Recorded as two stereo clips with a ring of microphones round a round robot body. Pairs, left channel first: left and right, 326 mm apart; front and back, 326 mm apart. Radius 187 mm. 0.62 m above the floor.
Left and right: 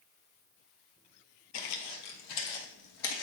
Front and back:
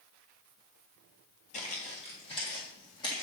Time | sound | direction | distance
1.5 | footsteps | 60° left | 0.8 m